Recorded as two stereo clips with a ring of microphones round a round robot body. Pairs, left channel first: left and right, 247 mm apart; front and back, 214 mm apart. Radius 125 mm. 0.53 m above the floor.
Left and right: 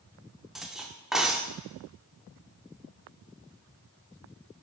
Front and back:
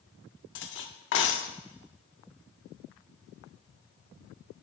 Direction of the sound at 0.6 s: Straight ahead.